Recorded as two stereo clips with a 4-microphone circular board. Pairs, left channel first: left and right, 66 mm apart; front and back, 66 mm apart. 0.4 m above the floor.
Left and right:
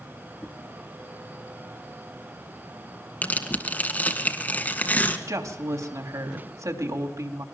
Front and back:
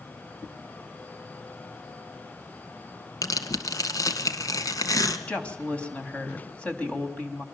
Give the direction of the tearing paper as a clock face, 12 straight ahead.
11 o'clock.